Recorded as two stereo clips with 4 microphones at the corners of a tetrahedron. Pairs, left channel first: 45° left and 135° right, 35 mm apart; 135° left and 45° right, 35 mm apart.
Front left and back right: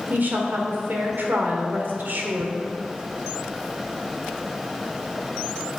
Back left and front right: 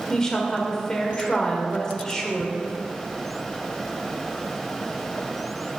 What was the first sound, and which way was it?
A woman speaking, 155° right.